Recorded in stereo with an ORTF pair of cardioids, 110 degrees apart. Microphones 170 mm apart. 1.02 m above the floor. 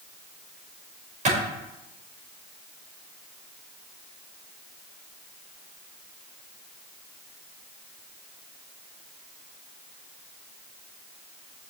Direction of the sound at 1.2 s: 50° right.